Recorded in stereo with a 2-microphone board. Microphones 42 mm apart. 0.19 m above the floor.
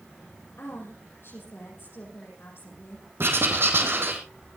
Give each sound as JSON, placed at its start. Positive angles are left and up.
{"t": 0.6, "sound": "a woman speaking", "side_deg": 70, "distance_m": 7.0}
{"t": 3.2, "sound": "writing", "side_deg": -65, "distance_m": 3.0}